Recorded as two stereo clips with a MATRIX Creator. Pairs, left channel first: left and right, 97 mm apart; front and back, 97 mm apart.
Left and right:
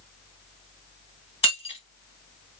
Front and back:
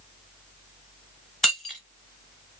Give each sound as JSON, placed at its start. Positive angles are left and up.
{"t": 1.4, "sound": "breaking glass", "azimuth_deg": 85, "distance_m": 1.9}